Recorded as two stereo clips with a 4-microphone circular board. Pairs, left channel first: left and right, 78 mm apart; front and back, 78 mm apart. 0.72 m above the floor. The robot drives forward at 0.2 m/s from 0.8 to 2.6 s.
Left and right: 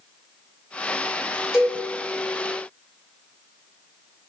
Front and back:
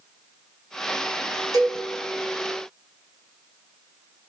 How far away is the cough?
No cough in this recording.